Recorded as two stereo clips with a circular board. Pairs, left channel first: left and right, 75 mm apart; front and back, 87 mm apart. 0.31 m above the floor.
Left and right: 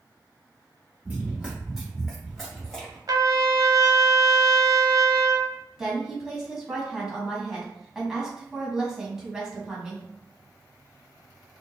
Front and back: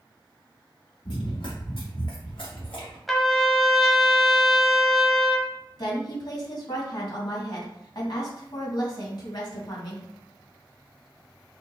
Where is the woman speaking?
10° right, 2.0 m.